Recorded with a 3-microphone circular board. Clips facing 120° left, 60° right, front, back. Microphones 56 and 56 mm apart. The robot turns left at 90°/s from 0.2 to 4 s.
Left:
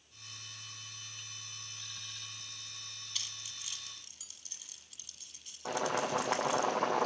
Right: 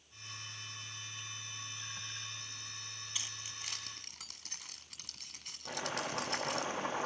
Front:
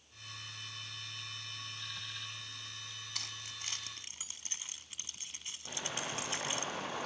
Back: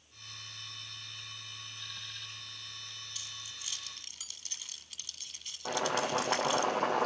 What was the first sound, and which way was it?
Keys jangling, 10° left.